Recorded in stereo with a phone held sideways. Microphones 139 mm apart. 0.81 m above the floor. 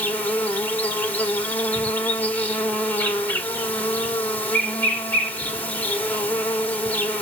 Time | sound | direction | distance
0.0 | an insect | 10° left (ahead or behind) | 2 m